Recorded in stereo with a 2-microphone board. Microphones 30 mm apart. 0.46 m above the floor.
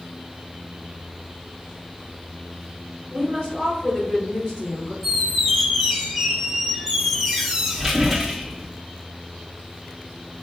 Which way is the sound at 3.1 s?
35° left (ahead or behind).